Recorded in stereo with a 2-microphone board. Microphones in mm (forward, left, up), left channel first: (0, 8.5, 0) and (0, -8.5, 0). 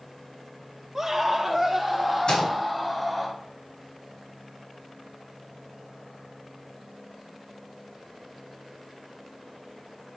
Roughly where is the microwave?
Left.